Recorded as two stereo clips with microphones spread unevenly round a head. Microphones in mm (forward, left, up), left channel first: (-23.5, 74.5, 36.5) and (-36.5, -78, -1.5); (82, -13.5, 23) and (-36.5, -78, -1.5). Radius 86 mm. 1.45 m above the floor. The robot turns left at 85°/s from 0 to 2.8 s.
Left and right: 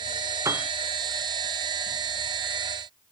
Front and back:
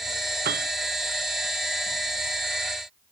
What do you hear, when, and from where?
0.5 s a piano: 165° right; by 0.7 s 175° left